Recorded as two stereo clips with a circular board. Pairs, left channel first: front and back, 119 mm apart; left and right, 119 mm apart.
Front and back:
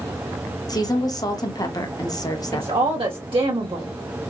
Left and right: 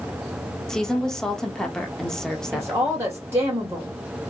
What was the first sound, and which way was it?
A woman speaking, 10° left.